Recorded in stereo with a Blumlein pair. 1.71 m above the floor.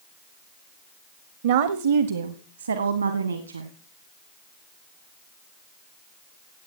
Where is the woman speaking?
55° right, 0.9 m; by 3.7 s 80° right, 2.0 m.